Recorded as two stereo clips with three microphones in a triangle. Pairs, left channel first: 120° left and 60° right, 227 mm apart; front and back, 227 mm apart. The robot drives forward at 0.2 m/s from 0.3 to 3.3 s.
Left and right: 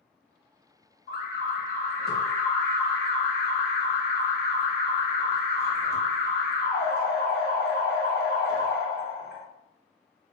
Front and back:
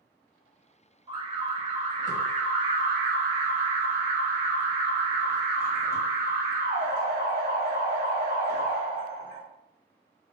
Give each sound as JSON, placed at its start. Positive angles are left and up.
{"t": 1.1, "sound": "an alarm", "azimuth_deg": 125, "distance_m": 0.8}